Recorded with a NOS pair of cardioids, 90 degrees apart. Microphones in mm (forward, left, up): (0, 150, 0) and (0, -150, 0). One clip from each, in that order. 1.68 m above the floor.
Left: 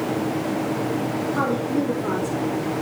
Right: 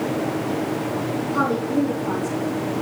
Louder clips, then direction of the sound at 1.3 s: Right 3 dB; straight ahead.